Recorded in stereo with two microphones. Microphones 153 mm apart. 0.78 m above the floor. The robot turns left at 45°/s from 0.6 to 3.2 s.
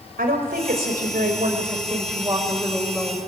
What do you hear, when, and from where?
0.2 s a woman speaking: 80° right, 3.5 m; by 3.2 s 165° left, 3.5 m